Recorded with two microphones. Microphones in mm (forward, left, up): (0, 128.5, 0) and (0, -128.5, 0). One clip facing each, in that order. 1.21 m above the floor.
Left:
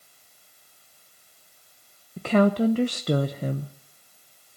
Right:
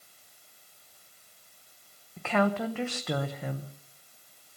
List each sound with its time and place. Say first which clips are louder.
2.2 s a woman speaking: left 7 dB; 40° left (ahead or behind), 0.8 m